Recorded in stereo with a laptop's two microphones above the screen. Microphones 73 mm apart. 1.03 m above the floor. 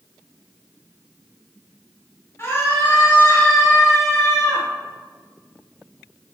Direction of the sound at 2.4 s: 35° left (ahead or behind).